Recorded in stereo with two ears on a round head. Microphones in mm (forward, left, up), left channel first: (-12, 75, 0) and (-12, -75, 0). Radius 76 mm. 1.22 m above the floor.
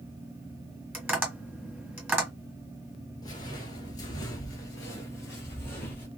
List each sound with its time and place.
0.9 s tapping: 10° right (ahead or behind), 2.0 m
3.2 s footsteps: 25° left (ahead or behind), 1.3 m; by 6.1 s 10° left (ahead or behind), 1.7 m